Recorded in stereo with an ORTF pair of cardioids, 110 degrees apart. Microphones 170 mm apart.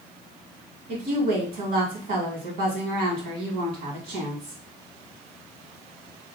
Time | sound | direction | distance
0.9 | a woman speaking | 65° right | 2 m